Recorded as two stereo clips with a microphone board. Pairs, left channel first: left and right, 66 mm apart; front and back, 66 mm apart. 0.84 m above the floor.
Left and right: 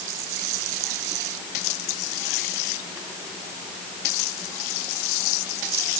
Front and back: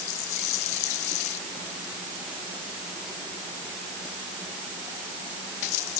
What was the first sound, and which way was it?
Only background noise.